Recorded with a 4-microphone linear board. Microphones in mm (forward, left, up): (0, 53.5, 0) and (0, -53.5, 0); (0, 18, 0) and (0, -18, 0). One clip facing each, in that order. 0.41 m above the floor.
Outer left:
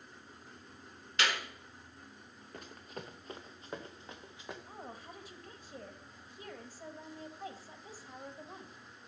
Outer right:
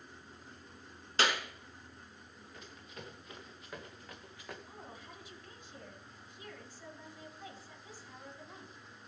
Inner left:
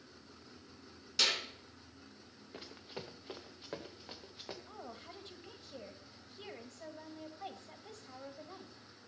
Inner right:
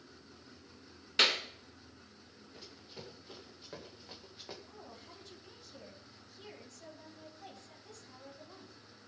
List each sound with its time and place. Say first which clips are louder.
1.2 s a clap: outer right 2 dB, inner right 4 dB; 35° right (ahead or behind), 3.5 m
2.5 s running footsteps: outer left 5 dB, inner left 4 dB; 50° left (ahead or behind), 2 m; by 4.6 s 15° left (ahead or behind), 2 m
4.7 s a woman speaking: outer left 3 dB, inner left 3 dB; 45° left (ahead or behind), 2.5 m